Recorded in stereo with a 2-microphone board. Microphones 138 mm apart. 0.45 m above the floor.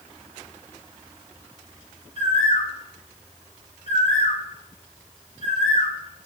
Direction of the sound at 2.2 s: 60° left (ahead or behind).